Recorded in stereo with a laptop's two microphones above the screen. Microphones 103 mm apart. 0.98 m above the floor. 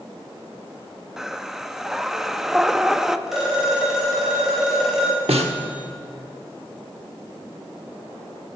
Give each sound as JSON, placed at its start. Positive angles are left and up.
{"t": 1.2, "sound": "breathing", "side_deg": -5, "distance_m": 0.6}
{"t": 3.3, "sound": "a phone ringing", "side_deg": -5, "distance_m": 3.5}
{"t": 5.3, "sound": "a snare drum", "side_deg": -75, "distance_m": 1.2}